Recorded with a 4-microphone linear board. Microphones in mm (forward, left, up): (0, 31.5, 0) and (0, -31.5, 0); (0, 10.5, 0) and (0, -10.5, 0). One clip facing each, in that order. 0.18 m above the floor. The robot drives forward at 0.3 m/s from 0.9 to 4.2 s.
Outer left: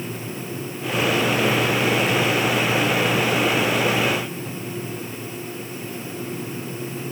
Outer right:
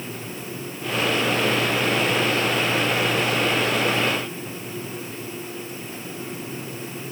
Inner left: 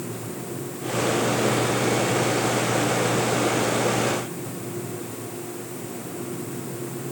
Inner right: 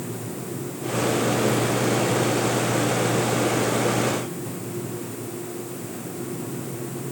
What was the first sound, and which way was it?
Only background noise.